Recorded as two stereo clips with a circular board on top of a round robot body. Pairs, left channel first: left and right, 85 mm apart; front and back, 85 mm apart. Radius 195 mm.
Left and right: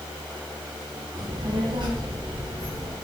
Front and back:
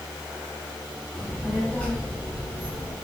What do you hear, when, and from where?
1.1 s a child speaking: 85° right, 1.2 m; by 2.9 s 65° right, 2.5 m